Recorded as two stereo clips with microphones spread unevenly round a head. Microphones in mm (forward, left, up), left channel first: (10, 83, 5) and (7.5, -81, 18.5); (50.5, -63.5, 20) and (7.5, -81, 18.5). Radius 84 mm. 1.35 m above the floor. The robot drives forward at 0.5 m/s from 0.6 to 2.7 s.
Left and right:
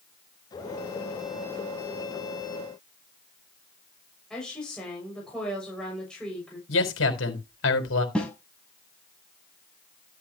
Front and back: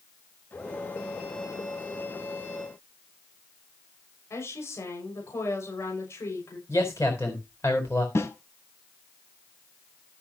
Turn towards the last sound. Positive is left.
turn(degrees=5)